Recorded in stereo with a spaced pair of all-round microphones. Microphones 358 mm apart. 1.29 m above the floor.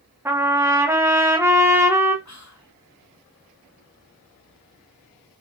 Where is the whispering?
50° left (ahead or behind), 0.9 m.